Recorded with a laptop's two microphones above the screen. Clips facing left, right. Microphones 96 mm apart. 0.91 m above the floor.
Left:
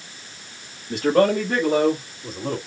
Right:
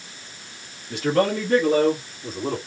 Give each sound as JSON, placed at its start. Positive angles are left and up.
{"t": 0.9, "sound": "a man speaking", "side_deg": 40, "distance_m": 1.6}